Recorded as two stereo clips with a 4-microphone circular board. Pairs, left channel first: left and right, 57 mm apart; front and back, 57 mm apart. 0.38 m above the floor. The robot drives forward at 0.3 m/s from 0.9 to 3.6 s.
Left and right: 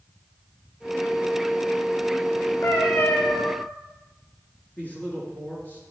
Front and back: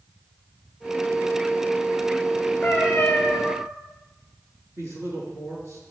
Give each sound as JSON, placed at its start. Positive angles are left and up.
{"t": 2.6, "sound": "a cat meowing", "azimuth_deg": 65, "distance_m": 2.5}
{"t": 4.8, "sound": "a man speaking", "azimuth_deg": 150, "distance_m": 5.0}